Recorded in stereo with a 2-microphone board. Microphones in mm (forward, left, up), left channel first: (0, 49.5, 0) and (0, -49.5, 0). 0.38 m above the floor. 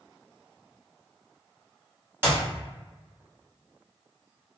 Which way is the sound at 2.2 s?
25° right (ahead or behind).